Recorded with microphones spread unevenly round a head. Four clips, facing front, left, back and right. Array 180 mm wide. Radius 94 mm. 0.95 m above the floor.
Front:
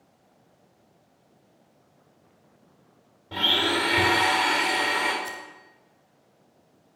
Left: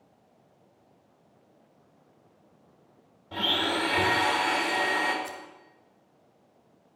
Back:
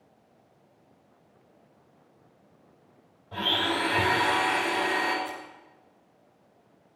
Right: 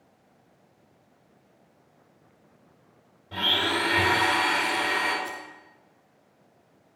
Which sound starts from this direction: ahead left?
Scissors, at 5.2 s.